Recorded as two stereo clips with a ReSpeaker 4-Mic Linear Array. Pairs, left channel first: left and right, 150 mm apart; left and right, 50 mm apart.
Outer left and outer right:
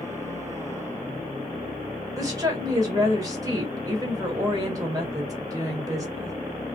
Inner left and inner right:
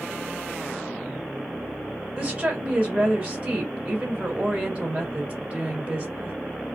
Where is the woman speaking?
25° right (ahead or behind), 1.5 m.